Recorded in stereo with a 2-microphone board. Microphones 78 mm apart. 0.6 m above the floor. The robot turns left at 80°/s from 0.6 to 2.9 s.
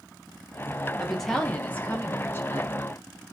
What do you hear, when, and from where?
1.0 s a woman speaking: 5° right (ahead or behind), 0.6 m; by 2.8 s 20° left (ahead or behind), 0.6 m